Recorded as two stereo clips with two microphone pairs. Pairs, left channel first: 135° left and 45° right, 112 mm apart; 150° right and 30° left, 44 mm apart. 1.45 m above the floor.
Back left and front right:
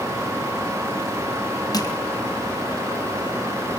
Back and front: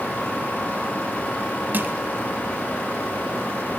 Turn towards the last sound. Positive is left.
turn(degrees=80)